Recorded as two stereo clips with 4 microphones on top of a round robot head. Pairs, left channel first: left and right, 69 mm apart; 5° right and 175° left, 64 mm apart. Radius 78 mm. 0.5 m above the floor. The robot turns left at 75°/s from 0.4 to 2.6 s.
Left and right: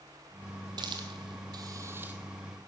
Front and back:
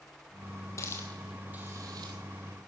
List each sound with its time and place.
0.8 s a hiss: 60° right, 2.5 m; by 2.1 s 160° right, 2.5 m